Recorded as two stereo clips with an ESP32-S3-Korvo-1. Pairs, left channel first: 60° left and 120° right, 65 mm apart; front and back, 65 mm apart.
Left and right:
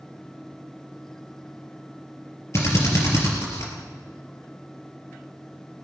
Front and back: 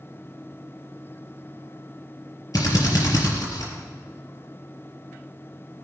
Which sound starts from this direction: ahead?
A drill, at 2.5 s.